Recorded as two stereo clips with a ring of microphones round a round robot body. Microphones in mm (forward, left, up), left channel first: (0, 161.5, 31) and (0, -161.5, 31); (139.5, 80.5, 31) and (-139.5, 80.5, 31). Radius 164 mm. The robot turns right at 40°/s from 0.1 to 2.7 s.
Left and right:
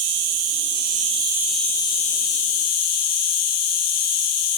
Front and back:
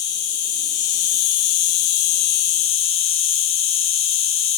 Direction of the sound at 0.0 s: 55° right.